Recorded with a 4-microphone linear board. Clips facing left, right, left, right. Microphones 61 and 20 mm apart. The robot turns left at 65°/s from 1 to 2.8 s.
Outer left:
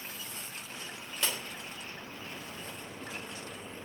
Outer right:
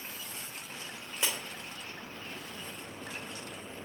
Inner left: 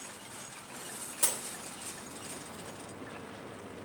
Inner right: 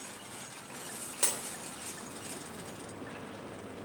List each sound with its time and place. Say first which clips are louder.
1.2 s breaking glass: even, even; 15° right (ahead or behind), 3 m; by 1.4 s 30° right (ahead or behind), 3 m